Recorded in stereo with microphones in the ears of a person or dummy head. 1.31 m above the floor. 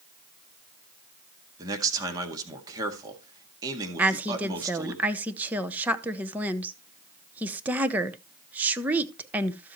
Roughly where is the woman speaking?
Centre.